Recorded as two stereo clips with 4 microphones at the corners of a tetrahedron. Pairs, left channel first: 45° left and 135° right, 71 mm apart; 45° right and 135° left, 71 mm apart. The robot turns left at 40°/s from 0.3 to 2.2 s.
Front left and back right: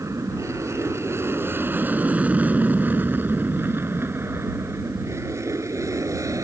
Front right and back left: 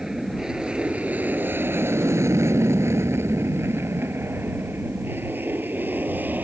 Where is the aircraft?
145° right; by 6.5 s 165° right.